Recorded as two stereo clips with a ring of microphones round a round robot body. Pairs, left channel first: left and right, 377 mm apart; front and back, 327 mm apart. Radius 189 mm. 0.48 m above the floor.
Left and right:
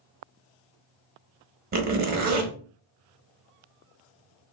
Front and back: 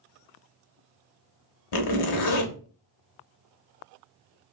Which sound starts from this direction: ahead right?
A zipper, at 1.7 s.